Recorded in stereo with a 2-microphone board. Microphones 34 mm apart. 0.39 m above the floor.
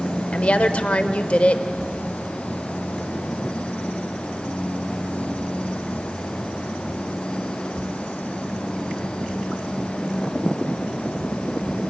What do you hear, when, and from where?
0.3 s a woman speaking: 35° left (ahead or behind), 1.1 m